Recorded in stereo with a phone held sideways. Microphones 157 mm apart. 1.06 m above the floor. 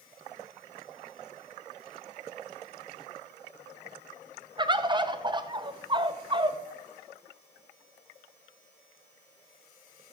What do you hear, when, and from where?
4.6 s a bird: 30° right (ahead or behind), 0.8 m